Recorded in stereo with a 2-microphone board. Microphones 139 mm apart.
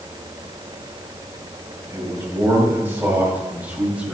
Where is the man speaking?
20° right (ahead or behind), 5 m; by 4.2 s 5° right (ahead or behind), 4 m.